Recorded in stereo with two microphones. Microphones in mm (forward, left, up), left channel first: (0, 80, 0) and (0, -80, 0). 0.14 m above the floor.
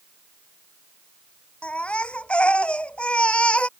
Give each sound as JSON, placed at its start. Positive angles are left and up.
{"t": 1.6, "sound": "a baby crying", "side_deg": 5}